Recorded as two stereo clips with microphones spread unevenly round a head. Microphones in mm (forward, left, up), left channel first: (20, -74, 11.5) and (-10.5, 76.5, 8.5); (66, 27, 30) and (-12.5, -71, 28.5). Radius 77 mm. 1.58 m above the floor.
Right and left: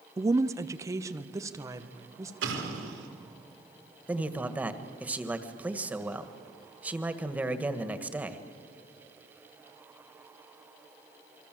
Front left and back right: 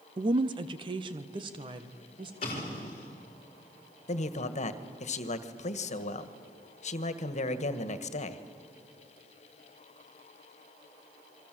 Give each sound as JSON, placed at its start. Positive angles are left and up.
{"t": 0.2, "sound": "a woman speaking", "azimuth_deg": 175, "distance_m": 0.6}
{"t": 2.4, "sound": "an explosion", "azimuth_deg": 105, "distance_m": 4.0}
{"t": 4.1, "sound": "a man speaking", "azimuth_deg": 20, "distance_m": 1.5}